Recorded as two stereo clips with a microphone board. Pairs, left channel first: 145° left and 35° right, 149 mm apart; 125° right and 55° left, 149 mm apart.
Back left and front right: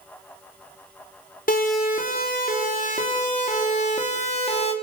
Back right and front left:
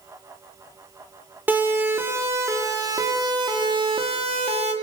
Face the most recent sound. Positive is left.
turn(degrees=100)